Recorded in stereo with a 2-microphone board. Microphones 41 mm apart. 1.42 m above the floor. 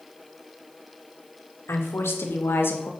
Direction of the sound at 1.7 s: 85° left.